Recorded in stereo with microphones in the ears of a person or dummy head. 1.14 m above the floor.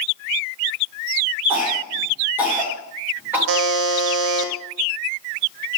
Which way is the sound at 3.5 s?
75° right (ahead or behind).